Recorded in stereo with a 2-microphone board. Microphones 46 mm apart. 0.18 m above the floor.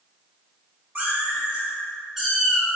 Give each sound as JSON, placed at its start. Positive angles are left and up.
{"t": 0.9, "sound": "a cat meowing", "side_deg": -40, "distance_m": 1.1}